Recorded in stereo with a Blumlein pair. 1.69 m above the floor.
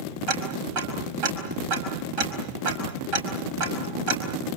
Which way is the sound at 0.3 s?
40° right.